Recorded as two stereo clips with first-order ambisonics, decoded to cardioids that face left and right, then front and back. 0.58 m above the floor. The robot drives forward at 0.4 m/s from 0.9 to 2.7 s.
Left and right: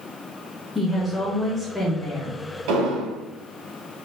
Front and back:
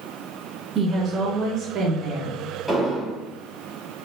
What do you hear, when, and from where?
0.8 s a woman speaking: 150° left, 0.6 m; by 2.4 s 170° left, 1.0 m
2.7 s an explosion: 95° right, 1.5 m